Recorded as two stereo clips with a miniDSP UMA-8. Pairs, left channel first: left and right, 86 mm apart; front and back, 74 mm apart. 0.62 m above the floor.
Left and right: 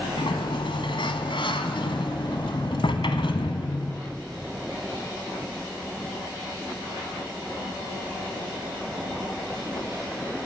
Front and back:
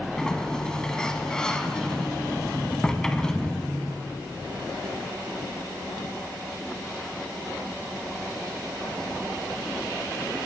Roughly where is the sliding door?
Left.